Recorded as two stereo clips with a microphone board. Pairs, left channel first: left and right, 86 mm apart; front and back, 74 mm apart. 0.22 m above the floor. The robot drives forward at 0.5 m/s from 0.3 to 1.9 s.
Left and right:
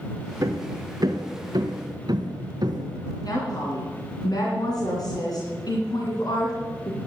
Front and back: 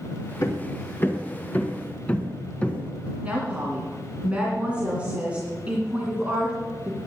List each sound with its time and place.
0.4 s hammering: 45° right, 1.8 m; by 3.1 s 70° right, 1.5 m
3.2 s a woman speaking: 110° left, 2.5 m